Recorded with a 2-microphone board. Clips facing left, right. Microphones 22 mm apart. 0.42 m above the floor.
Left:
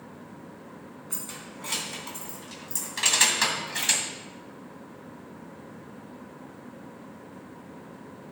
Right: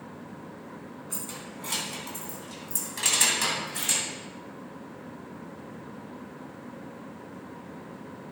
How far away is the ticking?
I don't hear ticking.